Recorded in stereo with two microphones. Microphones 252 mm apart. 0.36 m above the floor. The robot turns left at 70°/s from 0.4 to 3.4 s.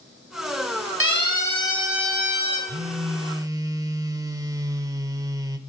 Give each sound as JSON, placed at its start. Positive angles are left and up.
{"t": 1.0, "sound": "a siren", "side_deg": 50, "distance_m": 3.5}
{"t": 2.7, "sound": "a phone buzzing", "side_deg": -25, "distance_m": 0.8}